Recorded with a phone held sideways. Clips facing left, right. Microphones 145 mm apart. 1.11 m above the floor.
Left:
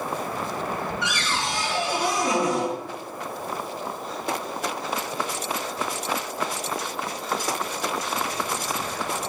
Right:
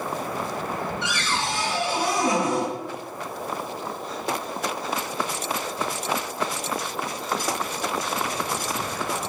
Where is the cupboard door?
25° right (ahead or behind), 3.5 m.